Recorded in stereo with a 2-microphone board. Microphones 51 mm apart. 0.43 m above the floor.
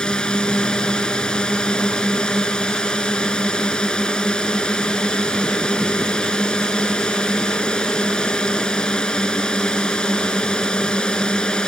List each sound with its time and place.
0.0 s a drone: 15° left (ahead or behind)